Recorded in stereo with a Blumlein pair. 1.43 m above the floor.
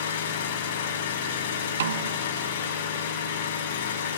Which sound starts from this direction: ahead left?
An engine running, at 0.0 s.